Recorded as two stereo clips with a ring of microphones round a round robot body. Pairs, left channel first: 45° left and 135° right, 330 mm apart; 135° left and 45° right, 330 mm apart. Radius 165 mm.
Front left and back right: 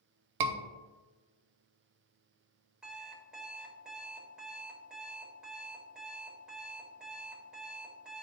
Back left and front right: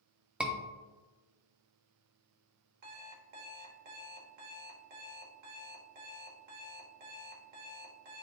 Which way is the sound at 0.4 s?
130° right.